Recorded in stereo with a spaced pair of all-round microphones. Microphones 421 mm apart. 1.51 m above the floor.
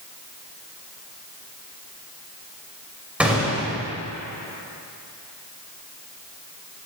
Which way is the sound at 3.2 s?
5° right (ahead or behind).